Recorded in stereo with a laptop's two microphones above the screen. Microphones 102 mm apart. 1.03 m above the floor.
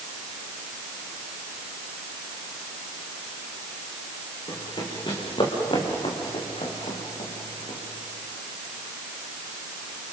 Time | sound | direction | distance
4.5 | running footsteps | 50° left (ahead or behind) | 5 m